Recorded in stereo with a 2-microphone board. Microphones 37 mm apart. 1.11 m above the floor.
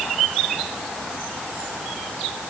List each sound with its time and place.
Only background noise.